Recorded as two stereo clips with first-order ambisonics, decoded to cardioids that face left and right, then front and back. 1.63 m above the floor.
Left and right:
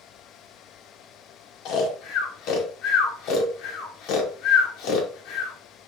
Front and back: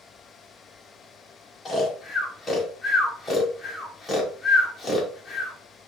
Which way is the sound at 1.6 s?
75° left.